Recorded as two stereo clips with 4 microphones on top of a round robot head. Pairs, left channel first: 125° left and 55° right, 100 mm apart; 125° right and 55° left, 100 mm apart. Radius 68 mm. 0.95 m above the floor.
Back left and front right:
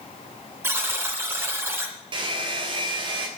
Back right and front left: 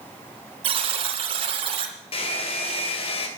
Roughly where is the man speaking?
I don't hear a man speaking.